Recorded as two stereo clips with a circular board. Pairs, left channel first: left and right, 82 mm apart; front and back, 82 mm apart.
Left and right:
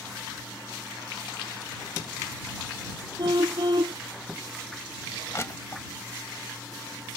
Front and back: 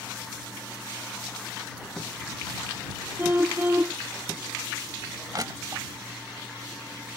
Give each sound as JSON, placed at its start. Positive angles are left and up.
{"t": 3.2, "sound": "a car horn", "azimuth_deg": -115}
{"t": 5.3, "sound": "crushing", "azimuth_deg": 140}